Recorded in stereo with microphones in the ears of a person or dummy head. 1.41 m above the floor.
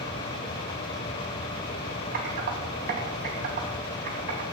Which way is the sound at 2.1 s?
55° right (ahead or behind).